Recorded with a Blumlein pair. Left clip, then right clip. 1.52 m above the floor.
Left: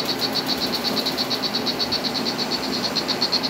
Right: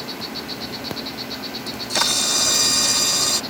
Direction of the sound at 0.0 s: 70° left.